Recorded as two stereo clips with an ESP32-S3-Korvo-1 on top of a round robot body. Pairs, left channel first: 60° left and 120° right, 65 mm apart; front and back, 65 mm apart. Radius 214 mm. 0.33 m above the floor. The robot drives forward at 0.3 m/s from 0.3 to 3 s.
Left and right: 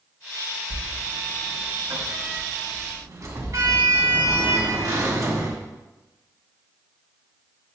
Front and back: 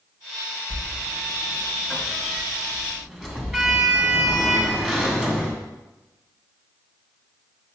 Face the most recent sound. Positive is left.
turn(degrees=-100)